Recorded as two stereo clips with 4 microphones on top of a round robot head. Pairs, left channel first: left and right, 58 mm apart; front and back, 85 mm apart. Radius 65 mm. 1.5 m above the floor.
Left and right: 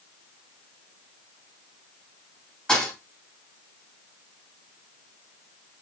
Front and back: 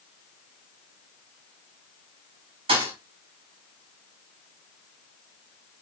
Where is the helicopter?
No helicopter in this recording.